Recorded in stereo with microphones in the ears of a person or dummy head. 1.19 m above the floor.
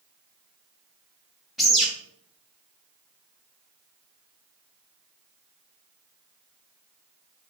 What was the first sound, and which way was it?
A bird, centre (ahead or behind).